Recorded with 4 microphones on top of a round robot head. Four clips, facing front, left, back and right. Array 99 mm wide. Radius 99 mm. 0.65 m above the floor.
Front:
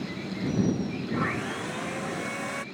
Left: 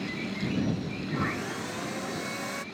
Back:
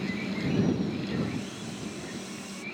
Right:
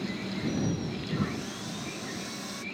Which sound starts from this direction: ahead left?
Sawing, at 1.1 s.